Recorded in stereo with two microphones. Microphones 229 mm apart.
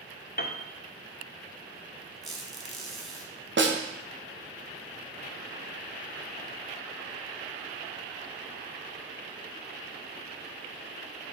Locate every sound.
0.4 s a piano: 40° left (ahead or behind), 0.6 m
2.2 s a squeak: centre (ahead or behind), 1.5 m
3.6 s a snare drum: 50° right (ahead or behind), 0.8 m